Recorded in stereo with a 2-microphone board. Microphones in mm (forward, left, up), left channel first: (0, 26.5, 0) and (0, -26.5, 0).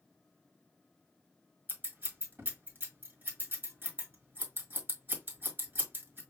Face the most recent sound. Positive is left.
turn(degrees=-40)  # may be behind; listen again after turning